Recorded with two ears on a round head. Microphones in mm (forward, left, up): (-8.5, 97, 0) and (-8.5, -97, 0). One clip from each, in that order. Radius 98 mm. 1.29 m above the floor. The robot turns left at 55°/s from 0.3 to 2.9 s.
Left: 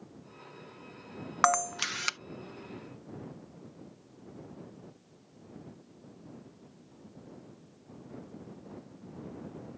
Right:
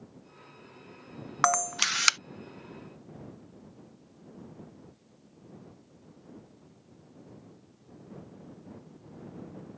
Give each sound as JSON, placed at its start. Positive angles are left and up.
{"t": 1.4, "sound": "a camera shutter", "side_deg": -5}